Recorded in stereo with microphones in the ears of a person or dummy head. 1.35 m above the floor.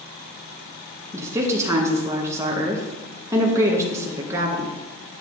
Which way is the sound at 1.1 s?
15° right (ahead or behind).